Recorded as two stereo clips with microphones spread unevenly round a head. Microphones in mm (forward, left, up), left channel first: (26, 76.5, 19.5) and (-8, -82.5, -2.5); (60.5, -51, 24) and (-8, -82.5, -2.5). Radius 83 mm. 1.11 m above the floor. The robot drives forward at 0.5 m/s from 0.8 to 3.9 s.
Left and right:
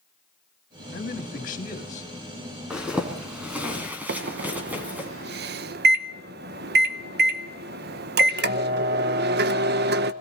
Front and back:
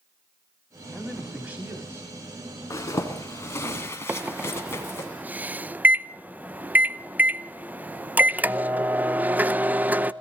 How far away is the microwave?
About 0.7 m.